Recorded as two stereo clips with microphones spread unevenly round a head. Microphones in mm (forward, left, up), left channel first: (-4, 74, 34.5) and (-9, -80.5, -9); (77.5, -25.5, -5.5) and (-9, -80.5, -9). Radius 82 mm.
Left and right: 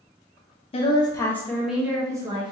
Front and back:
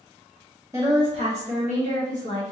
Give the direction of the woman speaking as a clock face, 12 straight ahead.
7 o'clock.